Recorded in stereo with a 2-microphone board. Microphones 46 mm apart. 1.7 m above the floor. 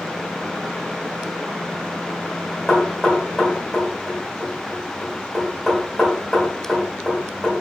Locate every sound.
2.7 s knocking: centre (ahead or behind), 2.0 m